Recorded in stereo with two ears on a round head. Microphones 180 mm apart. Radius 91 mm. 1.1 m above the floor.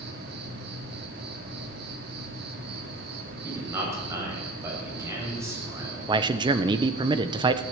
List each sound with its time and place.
0.0 s an insect: 55° right (ahead or behind), 2.5 m
3.4 s a man speaking: 15° right (ahead or behind), 7.5 m
6.1 s a man speaking: 20° right (ahead or behind), 0.7 m